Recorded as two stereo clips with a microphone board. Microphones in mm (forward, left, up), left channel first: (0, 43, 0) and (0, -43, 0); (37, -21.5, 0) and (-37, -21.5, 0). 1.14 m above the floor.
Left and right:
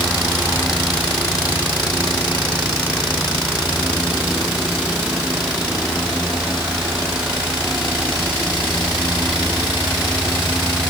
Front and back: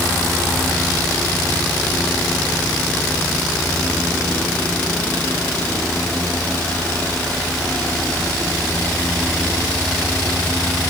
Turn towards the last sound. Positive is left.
No sound to turn to.